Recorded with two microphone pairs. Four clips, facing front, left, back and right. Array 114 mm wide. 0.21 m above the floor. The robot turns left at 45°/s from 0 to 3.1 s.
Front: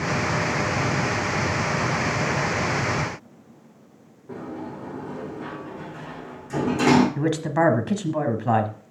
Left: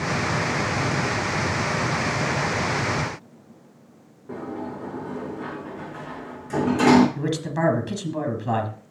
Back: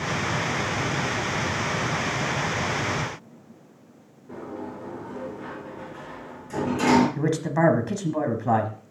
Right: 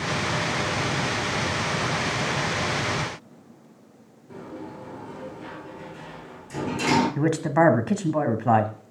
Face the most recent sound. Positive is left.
turn(degrees=-80)